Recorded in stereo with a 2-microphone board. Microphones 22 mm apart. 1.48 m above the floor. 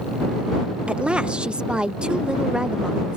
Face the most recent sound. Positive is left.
turn(degrees=-45)  # may be behind; listen again after turning